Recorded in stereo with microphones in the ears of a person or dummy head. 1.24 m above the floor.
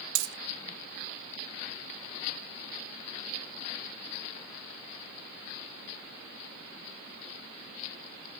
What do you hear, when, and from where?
0.1 s a dropped coin: 70° right (ahead or behind), 1.6 m